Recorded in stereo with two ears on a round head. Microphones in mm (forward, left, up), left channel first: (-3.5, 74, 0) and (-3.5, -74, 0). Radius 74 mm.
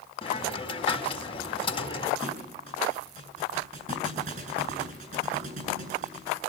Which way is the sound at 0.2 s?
30° left (ahead or behind).